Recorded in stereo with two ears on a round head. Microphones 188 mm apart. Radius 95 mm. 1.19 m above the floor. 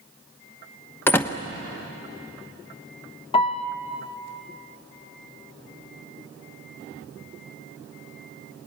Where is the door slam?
10° left (ahead or behind), 0.9 m.